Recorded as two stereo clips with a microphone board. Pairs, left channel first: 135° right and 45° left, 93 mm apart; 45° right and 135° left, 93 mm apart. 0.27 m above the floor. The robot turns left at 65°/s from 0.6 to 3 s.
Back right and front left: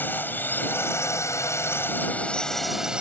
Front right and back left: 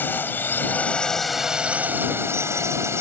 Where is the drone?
90° right; by 3.0 s 115° left.